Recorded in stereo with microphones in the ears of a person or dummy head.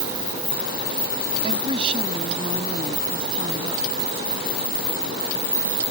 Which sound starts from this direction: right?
A woman speaking, at 1.4 s.